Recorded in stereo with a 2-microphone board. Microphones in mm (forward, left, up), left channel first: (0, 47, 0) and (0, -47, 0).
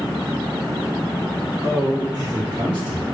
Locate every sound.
1.6 s a man speaking: 35° right (ahead or behind), 1.5 m; by 3.0 s 65° right (ahead or behind), 1.9 m